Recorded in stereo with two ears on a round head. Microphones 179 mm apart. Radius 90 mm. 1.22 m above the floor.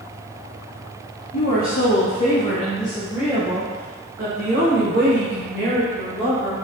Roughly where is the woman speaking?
Left.